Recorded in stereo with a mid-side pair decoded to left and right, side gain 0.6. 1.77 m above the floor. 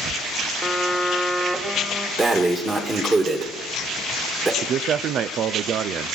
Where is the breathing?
25° right, 2.5 m.